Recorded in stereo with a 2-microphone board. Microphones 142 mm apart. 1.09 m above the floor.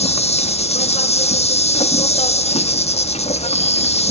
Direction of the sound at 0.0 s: 45° left (ahead or behind).